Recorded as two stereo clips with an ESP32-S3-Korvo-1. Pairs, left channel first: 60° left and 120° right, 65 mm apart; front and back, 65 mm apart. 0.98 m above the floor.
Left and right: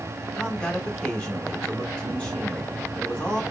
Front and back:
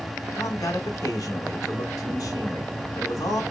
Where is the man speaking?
15° right, 1.7 m.